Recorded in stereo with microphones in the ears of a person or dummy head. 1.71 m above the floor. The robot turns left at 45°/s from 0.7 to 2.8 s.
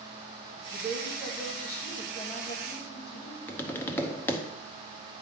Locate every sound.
0.7 s a woman speaking: 140° right, 1.8 m; by 3.4 s 125° left, 1.8 m
3.5 s tapping: 10° left (ahead or behind), 0.7 m